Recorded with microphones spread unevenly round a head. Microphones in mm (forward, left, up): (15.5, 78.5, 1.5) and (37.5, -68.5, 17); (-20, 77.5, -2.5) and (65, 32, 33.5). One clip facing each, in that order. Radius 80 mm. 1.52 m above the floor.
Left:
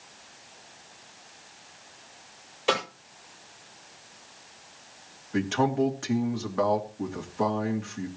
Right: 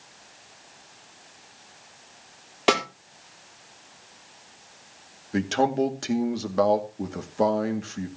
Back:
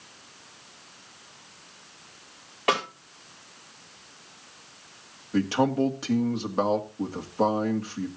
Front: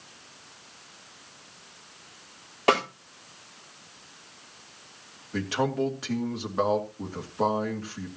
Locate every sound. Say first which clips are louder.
2.7 s a snare drum: right 4 dB, front 3 dB; 95° right, 4 m
5.3 s a man speaking: right 2 dB, back 4 dB; 135° right, 2 m